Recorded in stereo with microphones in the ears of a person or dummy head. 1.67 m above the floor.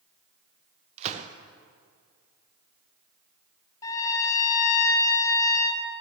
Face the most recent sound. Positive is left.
turn(degrees=15)  # may be behind; listen again after turning